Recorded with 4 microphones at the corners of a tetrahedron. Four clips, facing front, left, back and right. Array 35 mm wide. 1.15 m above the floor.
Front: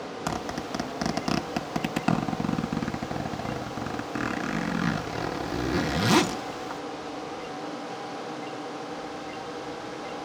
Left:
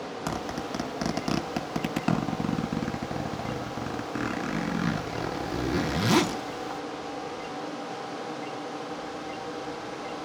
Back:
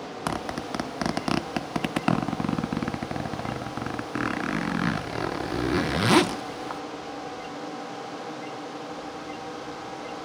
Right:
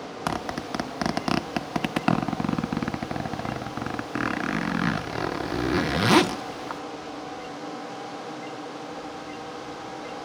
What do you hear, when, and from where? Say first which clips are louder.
0.3 s a zipper: right 4 dB, back 2 dB; 120° right, 0.7 m